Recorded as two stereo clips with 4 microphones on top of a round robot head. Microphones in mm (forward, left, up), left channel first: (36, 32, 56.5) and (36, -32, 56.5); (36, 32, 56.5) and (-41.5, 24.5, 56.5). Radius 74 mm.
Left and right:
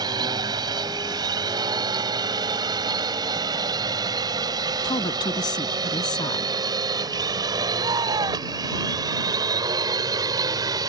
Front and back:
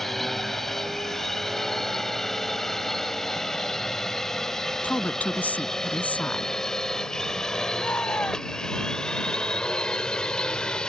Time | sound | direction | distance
0.0 | a drone | 80° right | ?
4.8 | a woman speaking | 80° left | ?
7.8 | a shout | 70° right | ?